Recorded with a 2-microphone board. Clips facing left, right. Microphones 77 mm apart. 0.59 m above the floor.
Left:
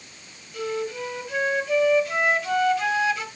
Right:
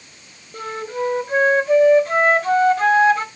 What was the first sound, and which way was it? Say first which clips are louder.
A flute: right 2 dB; 40° right (ahead or behind).